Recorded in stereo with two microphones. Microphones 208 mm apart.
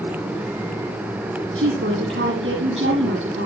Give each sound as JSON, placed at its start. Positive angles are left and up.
{"t": 1.6, "sound": "a woman speaking", "side_deg": -75, "distance_m": 7.0}